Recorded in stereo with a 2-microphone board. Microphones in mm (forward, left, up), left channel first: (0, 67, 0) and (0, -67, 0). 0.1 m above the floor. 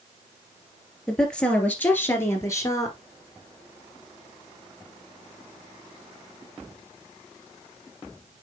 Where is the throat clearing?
No throat clearing in this recording.